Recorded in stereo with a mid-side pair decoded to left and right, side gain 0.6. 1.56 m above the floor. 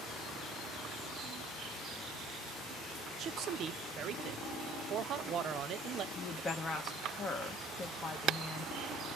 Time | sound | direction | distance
3.2 | a man speaking | 50° right | 0.5 m
6.2 | a woman speaking | 30° left | 1.0 m